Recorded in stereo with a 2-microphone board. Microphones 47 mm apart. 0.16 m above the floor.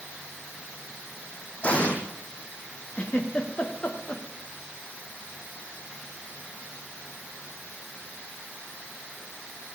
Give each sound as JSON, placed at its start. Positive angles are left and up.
{"t": 1.6, "sound": "an explosion", "side_deg": 25, "distance_m": 4.5}
{"t": 3.0, "sound": "a giggle", "side_deg": 25, "distance_m": 4.5}